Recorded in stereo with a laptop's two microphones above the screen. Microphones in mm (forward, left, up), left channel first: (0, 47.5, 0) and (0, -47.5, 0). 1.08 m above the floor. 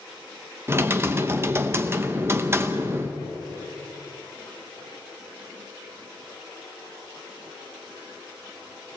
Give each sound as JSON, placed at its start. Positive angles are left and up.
{"t": 0.7, "sound": "typing on a keyboard", "side_deg": -25, "distance_m": 0.9}